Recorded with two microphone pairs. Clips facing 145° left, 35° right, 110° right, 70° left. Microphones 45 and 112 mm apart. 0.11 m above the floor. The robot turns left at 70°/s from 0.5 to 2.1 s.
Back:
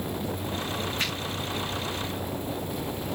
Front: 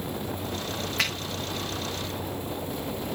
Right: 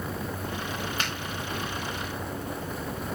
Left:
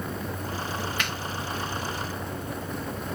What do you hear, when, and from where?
1.0 s a finger snap: 50° right, 8 m; by 1.1 s 60° right, 8 m